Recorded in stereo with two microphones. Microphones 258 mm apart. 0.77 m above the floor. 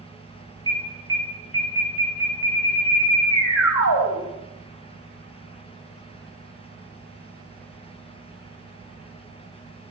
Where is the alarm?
55° left (ahead or behind), 6.5 m.